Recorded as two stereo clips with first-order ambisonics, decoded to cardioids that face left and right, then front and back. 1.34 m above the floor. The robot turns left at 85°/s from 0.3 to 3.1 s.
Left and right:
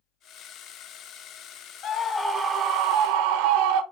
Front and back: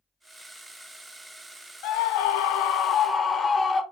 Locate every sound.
1.8 s a scream: 35° left, 0.6 m; by 3.8 s 75° right, 0.6 m